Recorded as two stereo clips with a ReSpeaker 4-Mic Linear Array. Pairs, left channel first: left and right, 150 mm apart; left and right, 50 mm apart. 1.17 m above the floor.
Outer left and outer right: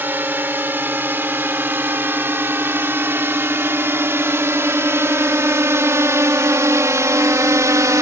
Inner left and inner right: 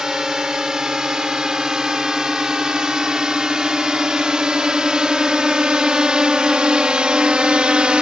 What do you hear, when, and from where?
0.0 s a drone: 15° right (ahead or behind); by 8.0 s 20° right (ahead or behind)